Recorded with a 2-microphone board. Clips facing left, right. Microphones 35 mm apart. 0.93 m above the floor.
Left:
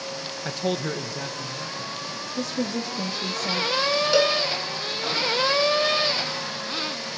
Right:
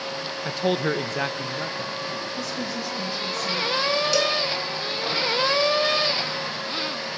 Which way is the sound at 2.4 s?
55° left (ahead or behind).